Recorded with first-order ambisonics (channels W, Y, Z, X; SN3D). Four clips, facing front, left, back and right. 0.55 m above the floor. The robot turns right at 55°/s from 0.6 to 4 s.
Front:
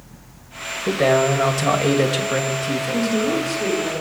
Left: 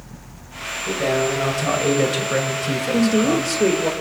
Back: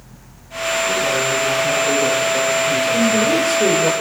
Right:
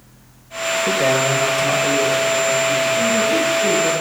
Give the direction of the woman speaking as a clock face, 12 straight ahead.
9 o'clock.